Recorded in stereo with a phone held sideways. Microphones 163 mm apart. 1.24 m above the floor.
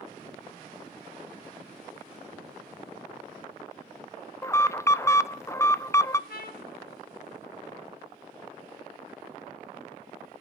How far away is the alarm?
About 0.6 m.